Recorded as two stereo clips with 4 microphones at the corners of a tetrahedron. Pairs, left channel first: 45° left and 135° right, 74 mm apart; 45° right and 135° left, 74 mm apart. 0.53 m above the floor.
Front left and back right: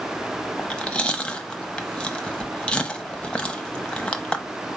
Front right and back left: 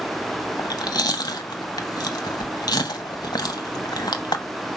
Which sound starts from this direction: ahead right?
Chewing, at 0.6 s.